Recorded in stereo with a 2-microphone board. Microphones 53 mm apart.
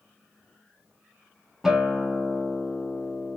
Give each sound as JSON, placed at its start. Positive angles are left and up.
{"t": 1.6, "sound": "a guitar", "side_deg": -10, "distance_m": 1.4}